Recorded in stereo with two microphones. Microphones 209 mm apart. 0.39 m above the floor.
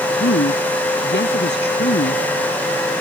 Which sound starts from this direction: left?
A woman speaking, at 0.2 s.